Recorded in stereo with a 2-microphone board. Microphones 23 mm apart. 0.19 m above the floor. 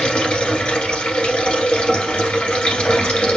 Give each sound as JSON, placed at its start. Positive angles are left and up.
{"t": 0.0, "sound": "running water", "side_deg": 70, "distance_m": 1.7}